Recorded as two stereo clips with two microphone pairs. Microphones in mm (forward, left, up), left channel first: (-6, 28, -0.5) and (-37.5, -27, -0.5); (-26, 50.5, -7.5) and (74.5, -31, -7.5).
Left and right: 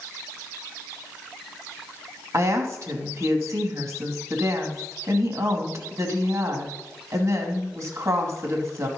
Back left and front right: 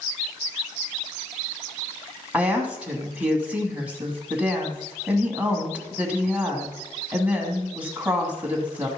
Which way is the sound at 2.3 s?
115° right.